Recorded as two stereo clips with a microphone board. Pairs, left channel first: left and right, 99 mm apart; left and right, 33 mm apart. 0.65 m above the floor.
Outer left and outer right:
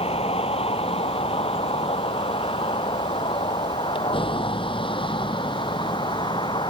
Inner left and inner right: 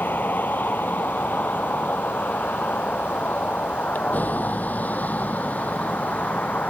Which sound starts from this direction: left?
A vehicle, at 0.0 s.